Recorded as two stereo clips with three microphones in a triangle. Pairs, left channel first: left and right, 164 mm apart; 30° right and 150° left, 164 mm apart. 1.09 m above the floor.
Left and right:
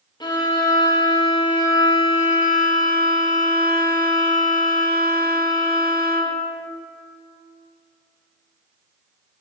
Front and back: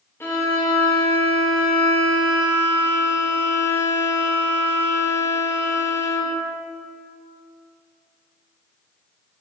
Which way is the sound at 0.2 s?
35° left.